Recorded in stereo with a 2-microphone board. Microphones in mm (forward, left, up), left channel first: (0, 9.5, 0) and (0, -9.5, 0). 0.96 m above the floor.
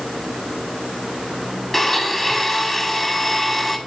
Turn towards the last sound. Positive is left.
turn(degrees=20)  # may be behind; listen again after turning